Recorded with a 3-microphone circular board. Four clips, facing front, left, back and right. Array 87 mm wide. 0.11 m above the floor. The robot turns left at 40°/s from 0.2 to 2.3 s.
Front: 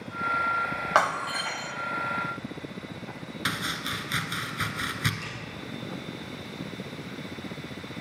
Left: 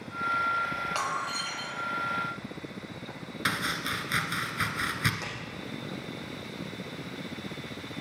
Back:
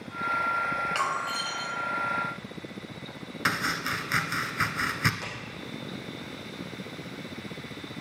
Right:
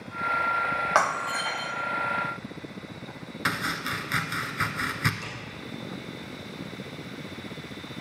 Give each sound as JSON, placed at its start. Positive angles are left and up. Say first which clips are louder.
{"t": 0.9, "sound": "breaking glass", "louder": "right 7 dB, front 4 dB", "azimuth_deg": -40, "distance_m": 1.7}
{"t": 3.5, "sound": "chopping", "louder": "right 2 dB, back 4 dB", "azimuth_deg": -155, "distance_m": 1.2}
{"t": 5.2, "sound": "a clap", "louder": "left 1 dB, back 1 dB", "azimuth_deg": 140, "distance_m": 5.5}